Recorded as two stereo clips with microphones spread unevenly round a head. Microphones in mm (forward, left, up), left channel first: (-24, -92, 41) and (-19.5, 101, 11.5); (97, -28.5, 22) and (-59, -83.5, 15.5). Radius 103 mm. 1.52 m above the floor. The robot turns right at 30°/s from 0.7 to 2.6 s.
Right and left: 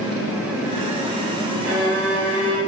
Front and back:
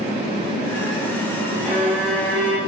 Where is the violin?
110° left, 1.6 m; by 2.6 s 135° left, 1.6 m.